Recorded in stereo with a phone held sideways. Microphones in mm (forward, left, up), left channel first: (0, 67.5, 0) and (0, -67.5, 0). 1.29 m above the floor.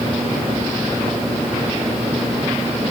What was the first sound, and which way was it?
Only background noise.